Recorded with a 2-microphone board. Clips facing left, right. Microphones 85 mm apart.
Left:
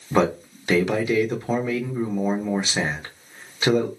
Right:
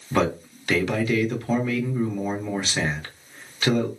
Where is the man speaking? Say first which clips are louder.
Left 2 dB; 20° left (ahead or behind), 0.7 m.